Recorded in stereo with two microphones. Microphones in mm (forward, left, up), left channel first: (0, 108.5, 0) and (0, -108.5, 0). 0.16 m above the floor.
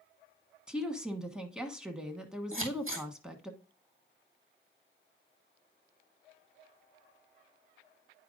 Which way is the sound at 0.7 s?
5° right (ahead or behind).